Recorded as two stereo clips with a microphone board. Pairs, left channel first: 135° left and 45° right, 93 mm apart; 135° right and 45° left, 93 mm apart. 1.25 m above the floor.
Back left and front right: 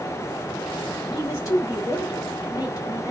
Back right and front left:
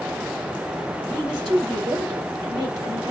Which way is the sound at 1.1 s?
85° left.